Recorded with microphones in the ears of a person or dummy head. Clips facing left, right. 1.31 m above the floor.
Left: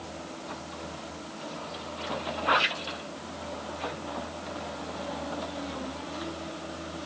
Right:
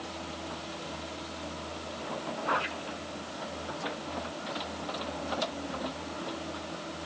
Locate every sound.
Only background noise.